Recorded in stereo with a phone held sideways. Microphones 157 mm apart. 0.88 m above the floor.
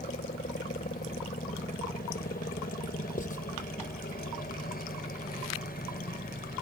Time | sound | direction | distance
0.0 | a helicopter | 70° left (ahead or behind) | ?
3.2 | writing | 60° left (ahead or behind) | ?